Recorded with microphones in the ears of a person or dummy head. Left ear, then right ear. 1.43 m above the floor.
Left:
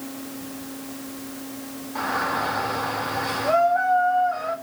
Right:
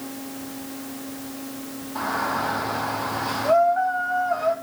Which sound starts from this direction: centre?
A shout, at 1.9 s.